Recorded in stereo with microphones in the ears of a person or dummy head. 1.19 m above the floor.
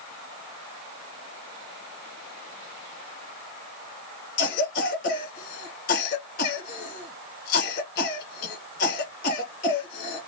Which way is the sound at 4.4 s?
55° left (ahead or behind).